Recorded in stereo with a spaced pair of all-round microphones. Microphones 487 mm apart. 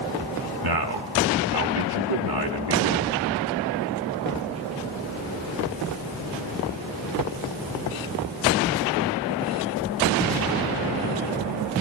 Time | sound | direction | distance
0.6 | a man speaking | 50° right (ahead or behind) | 0.9 m